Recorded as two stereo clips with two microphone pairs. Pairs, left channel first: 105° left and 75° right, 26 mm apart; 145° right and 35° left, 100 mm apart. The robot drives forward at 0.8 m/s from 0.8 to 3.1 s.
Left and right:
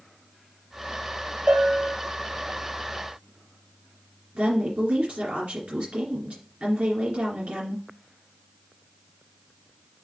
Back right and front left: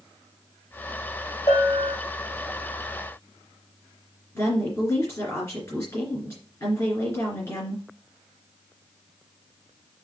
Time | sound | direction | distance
1.5 | a bell | 90° right | 3 m
4.3 | a woman speaking | 85° right | 2.5 m